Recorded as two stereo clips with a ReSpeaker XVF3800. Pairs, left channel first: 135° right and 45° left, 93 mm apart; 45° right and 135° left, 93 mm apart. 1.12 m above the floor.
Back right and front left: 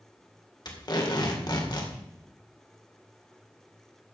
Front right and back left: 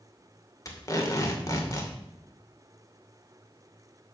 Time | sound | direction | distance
0.7 | tape being pulled | 100° right | 2 m